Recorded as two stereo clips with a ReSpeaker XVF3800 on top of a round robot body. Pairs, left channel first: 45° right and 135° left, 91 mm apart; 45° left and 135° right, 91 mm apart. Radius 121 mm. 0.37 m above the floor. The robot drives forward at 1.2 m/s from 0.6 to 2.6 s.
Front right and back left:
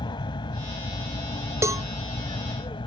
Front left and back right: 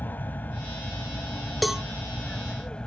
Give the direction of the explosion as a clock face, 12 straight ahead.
No explosion in this recording.